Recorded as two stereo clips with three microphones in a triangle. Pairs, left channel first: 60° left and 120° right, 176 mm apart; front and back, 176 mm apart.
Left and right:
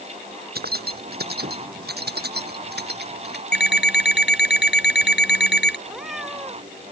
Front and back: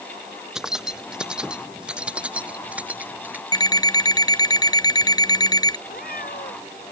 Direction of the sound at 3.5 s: 70° left.